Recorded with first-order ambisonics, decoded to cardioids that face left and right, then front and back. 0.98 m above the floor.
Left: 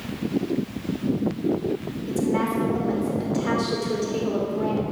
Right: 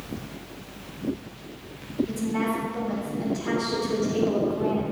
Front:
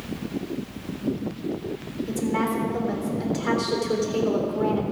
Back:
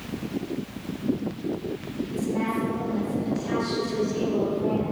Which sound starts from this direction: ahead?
A woman speaking, at 2.1 s.